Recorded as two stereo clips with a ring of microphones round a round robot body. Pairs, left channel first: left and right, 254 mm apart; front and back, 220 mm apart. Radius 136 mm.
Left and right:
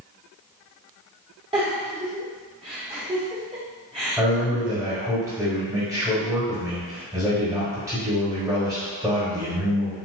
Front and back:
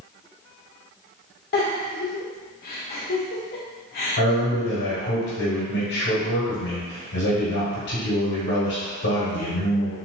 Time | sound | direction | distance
1.5 | a giggle | 30° right | 1.1 m
4.2 | a man speaking | 15° right | 1.4 m